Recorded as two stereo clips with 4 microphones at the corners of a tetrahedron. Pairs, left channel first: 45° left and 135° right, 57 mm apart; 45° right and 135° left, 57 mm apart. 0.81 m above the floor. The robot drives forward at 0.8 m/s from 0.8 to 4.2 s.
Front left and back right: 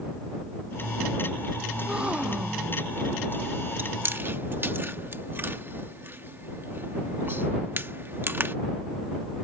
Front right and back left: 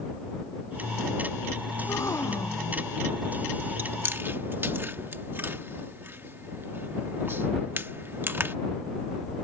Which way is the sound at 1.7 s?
65° right.